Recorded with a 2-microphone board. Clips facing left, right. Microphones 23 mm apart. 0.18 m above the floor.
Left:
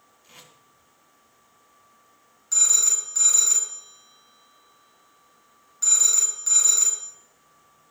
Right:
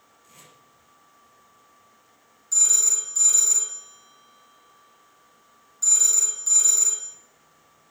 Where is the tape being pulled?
50° left (ahead or behind), 2.5 m.